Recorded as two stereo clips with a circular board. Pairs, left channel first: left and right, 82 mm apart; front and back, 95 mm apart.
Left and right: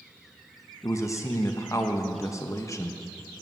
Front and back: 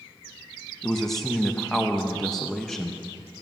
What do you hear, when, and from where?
0.8 s a man speaking: 85° left, 0.7 m